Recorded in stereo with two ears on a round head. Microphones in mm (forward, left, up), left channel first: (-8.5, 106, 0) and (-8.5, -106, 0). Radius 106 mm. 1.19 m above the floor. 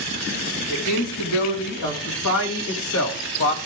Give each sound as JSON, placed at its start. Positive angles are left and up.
{"t": 0.7, "sound": "a man speaking", "side_deg": 70, "distance_m": 4.0}